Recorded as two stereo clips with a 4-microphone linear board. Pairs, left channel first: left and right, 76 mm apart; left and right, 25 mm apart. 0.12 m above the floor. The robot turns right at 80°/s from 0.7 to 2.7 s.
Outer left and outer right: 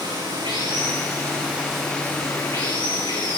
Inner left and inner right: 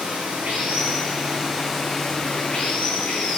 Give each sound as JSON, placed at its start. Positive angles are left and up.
{"t": 0.0, "sound": "running water", "azimuth_deg": -90, "distance_m": 8.0}